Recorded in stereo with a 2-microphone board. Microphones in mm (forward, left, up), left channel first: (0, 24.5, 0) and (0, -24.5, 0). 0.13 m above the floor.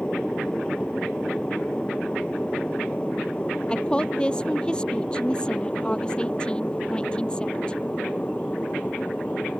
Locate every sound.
0.0 s an aircraft: 20° left (ahead or behind); by 9.6 s 30° left (ahead or behind)
3.7 s a woman speaking: 20° left (ahead or behind)